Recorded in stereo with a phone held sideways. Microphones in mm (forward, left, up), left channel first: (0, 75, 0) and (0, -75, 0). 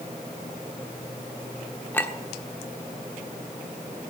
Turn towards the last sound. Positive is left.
turn(degrees=15)  # may be behind; listen again after turning